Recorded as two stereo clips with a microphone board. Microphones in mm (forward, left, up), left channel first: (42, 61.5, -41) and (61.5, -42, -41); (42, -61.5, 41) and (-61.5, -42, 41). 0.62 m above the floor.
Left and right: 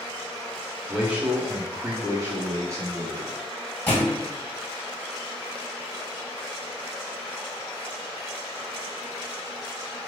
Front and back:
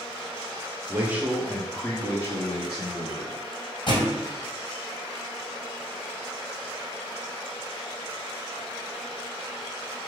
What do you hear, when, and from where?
0.9 s a man speaking: 150° right, 0.9 m; by 3.3 s 25° right, 1.2 m
3.9 s a thud: 30° left, 1.8 m